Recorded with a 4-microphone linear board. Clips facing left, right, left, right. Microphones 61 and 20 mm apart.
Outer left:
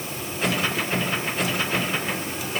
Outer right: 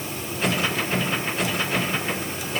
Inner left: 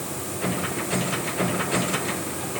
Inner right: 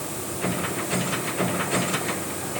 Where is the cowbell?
I don't hear a cowbell.